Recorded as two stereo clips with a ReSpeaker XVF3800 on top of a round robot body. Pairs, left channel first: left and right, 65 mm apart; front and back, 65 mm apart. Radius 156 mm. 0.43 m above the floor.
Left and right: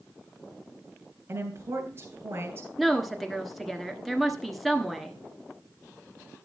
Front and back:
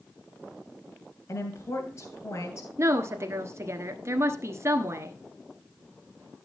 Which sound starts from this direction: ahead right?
A woman speaking, at 1.3 s.